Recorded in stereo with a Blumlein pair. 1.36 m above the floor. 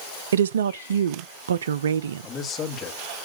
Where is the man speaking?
25° left, 2 m.